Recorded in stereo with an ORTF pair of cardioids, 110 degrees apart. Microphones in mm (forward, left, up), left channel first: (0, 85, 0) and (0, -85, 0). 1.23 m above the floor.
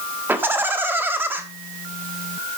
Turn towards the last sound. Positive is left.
turn(degrees=-15)